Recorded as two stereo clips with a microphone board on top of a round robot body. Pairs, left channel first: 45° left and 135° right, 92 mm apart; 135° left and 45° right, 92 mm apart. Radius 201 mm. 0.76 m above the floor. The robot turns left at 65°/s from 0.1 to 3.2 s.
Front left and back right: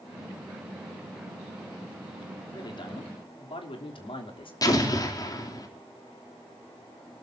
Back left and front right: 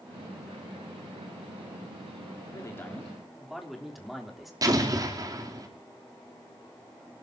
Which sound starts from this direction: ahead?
An explosion, at 4.6 s.